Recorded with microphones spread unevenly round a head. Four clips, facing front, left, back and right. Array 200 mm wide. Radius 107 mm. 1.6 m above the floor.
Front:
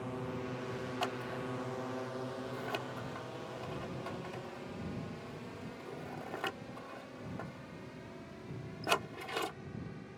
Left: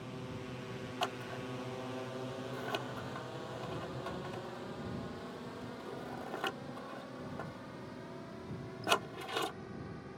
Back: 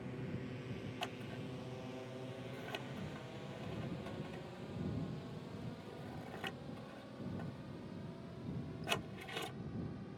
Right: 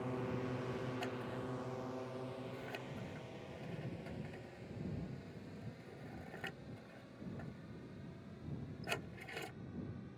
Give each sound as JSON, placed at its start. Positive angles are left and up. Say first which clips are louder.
{"t": 0.0, "sound": "a drone", "louder": "right 4 dB, front 6 dB", "azimuth_deg": -50}
{"t": 1.0, "sound": "scissors", "louder": "left 3 dB, front 8 dB", "azimuth_deg": 45}